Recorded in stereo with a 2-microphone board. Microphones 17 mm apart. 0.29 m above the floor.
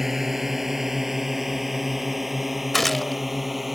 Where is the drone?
20° right (ahead or behind); by 3.8 s 10° right (ahead or behind).